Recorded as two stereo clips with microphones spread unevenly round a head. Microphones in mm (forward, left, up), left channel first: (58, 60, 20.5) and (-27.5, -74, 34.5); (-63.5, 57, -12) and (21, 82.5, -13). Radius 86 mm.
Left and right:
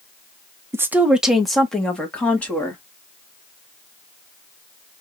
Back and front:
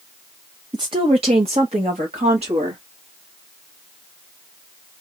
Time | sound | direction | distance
0.7 | a woman speaking | 45° right | 0.7 m